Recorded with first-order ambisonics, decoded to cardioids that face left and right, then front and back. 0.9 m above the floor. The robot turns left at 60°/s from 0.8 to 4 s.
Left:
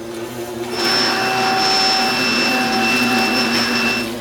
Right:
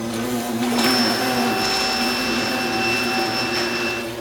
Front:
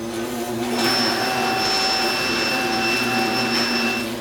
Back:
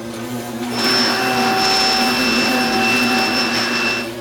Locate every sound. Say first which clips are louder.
0.0 s an insect: right 2 dB, front 1 dB; 95° right, 2 m; by 4.2 s 75° left, 2 m